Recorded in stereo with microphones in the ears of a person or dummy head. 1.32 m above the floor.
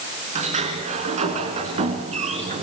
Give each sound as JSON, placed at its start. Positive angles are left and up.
{"t": 0.3, "sound": "a sliding door", "side_deg": -35, "distance_m": 3.5}